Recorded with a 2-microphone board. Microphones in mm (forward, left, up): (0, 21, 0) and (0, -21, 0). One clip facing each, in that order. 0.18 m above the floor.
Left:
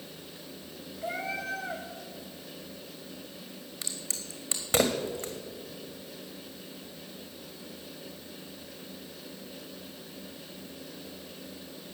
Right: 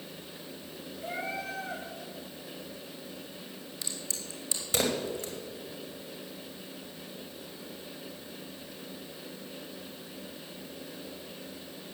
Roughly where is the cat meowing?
Left.